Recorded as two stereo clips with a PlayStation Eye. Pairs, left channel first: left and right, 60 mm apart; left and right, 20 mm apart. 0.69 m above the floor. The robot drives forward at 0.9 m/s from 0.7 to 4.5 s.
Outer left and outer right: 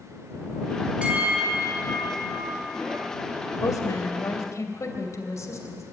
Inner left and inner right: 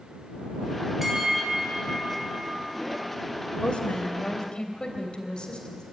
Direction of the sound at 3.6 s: 70° left (ahead or behind).